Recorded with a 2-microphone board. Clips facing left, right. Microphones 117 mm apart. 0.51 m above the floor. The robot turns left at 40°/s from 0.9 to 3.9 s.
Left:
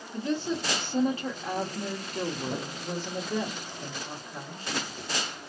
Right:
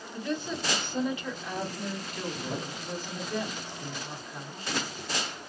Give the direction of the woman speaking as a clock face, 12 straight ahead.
8 o'clock.